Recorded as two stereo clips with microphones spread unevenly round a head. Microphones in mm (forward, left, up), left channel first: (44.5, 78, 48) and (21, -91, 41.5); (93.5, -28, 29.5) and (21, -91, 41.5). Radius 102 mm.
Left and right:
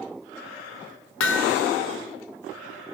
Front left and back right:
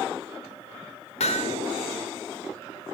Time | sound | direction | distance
1.2 | hammering | 80° left | 1.9 m